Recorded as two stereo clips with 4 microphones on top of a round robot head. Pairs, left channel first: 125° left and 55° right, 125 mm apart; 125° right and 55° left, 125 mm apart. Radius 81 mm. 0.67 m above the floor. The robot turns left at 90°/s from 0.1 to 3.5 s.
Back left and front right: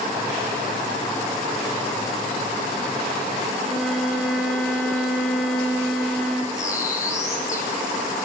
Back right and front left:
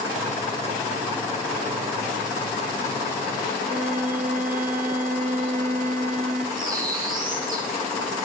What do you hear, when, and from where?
3.6 s a violin: 35° left, 4.5 m
6.5 s a bird: 60° left, 7 m